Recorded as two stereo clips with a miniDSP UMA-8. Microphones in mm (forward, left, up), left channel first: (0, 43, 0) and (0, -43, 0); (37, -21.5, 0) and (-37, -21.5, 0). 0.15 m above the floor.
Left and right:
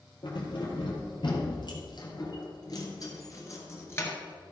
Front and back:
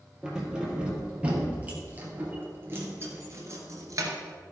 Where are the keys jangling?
100° left, 3 m; by 4.1 s 150° left, 2.0 m.